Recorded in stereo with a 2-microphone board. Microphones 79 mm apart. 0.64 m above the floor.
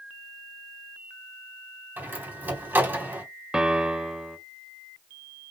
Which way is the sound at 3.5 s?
10° right (ahead or behind).